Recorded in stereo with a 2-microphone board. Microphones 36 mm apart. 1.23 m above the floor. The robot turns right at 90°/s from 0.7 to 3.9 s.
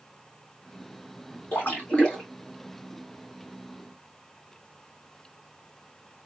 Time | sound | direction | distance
1.5 | a splash | 110° left | 3 m